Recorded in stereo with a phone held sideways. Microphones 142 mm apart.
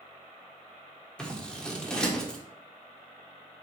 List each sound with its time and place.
1.2 s scissors: 5° left (ahead or behind), 1.4 m